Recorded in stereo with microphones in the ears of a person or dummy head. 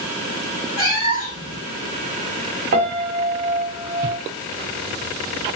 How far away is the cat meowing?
About 0.9 m.